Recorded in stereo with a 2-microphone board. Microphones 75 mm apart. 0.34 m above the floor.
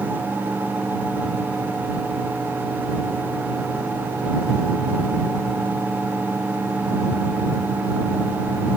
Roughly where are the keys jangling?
No keys jangling in this recording.